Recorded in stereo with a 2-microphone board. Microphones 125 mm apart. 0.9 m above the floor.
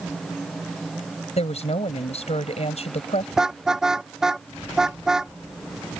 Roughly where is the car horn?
Centre.